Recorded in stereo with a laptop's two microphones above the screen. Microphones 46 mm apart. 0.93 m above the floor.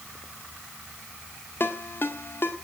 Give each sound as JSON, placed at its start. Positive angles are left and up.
{"t": 1.6, "sound": "a ringtone", "side_deg": 50, "distance_m": 1.7}